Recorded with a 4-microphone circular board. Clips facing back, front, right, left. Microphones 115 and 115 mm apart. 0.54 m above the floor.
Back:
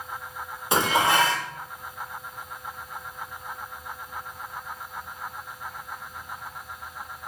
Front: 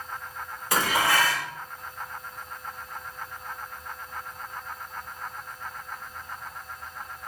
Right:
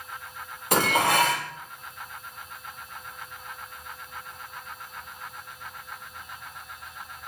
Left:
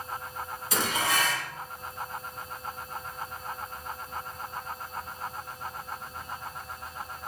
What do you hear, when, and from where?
0.7 s dishes clattering: 115° right, 0.9 m